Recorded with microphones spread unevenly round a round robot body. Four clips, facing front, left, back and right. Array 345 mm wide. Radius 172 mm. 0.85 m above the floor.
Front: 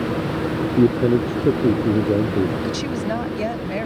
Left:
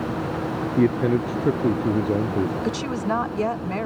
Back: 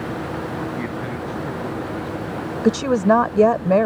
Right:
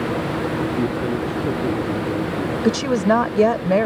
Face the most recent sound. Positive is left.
turn(degrees=-145)